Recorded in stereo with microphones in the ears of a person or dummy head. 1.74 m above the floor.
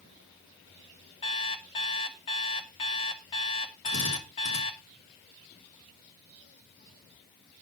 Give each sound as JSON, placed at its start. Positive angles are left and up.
{"t": 1.2, "sound": "an alarm clock", "side_deg": 20, "distance_m": 1.0}
{"t": 3.9, "sound": "a drill", "side_deg": 85, "distance_m": 4.0}